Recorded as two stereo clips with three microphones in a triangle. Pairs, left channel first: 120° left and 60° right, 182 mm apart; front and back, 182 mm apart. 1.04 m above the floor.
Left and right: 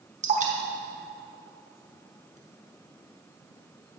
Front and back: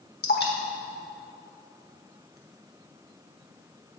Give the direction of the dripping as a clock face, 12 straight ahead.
1 o'clock.